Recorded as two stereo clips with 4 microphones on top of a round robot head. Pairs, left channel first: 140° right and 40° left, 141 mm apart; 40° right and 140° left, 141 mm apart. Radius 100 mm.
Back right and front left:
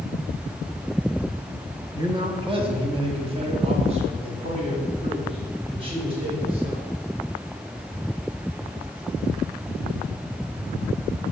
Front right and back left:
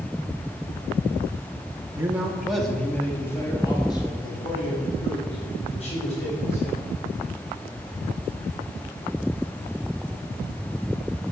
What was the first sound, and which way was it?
A man speaking, 75° left.